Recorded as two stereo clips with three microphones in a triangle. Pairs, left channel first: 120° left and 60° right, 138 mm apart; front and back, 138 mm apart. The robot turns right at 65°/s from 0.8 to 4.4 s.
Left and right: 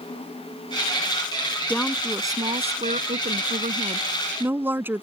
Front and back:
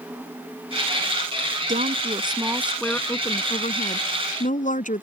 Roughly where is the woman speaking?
Behind.